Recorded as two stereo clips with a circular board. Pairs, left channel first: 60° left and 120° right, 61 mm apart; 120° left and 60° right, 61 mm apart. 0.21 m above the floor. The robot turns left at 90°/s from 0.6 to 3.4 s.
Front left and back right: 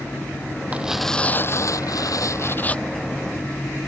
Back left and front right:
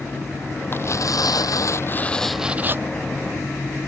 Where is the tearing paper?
175° left; by 2.8 s 20° right.